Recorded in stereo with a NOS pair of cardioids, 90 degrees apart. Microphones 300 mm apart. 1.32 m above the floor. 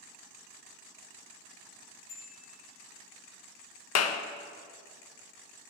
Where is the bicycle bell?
60° left, 6.5 m.